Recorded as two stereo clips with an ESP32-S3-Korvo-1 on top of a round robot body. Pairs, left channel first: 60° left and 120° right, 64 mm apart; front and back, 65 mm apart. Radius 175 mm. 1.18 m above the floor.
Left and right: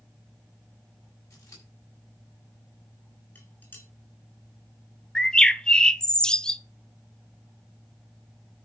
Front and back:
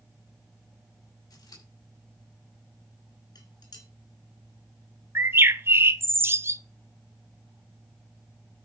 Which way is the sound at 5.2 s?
135° left.